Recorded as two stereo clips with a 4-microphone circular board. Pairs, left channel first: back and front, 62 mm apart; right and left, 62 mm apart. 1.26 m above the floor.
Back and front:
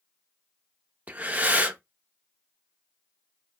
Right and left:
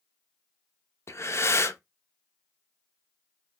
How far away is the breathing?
About 0.7 m.